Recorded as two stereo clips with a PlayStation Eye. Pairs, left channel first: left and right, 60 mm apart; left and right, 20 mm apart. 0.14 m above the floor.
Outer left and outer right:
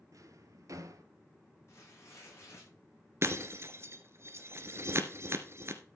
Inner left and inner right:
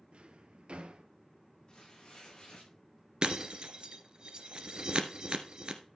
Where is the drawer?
65° right (ahead or behind), 1.3 m.